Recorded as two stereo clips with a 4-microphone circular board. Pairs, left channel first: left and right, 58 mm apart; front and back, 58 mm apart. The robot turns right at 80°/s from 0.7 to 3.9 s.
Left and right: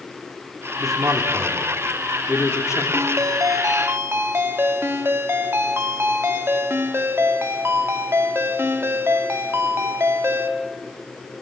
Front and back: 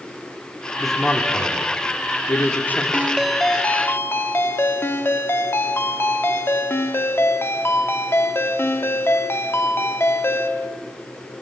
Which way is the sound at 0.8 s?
90° right.